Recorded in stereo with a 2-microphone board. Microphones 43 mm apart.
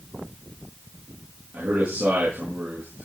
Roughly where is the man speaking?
Right.